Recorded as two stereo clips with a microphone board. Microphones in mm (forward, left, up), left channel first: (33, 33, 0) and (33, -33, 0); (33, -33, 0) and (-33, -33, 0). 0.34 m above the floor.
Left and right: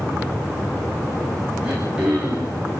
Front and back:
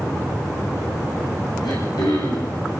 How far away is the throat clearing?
About 9 m.